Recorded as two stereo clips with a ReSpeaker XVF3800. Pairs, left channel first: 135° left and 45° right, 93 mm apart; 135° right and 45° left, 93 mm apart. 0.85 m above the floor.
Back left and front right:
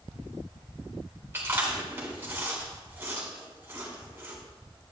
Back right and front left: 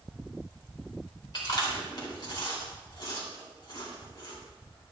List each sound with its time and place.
1.3 s chewing: 105° right, 2.5 m